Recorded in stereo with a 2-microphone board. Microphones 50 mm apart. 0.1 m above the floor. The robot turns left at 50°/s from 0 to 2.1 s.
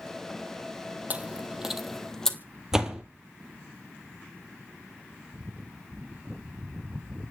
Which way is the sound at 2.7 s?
10° right (ahead or behind).